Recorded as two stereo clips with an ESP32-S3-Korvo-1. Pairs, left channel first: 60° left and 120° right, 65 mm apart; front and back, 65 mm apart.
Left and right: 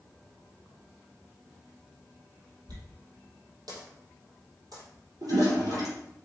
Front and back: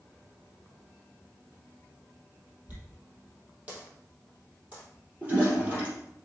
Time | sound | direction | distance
2.7 | a dropped coin | 115° right | 3 m
5.2 | a toilet flushing | 110° right | 4 m